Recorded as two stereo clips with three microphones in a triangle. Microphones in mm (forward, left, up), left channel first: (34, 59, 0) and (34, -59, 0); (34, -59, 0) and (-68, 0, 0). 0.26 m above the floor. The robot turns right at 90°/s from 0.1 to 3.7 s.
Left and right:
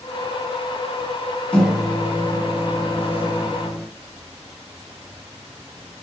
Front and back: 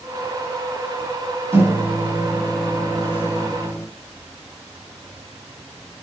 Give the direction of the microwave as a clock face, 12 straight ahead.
7 o'clock.